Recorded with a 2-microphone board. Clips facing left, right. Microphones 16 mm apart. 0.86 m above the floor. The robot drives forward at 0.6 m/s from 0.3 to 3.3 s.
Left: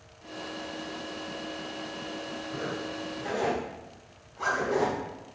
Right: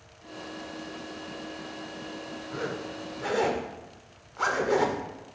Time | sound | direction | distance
2.5 | a zipper | 70° right (ahead or behind) | 1.6 m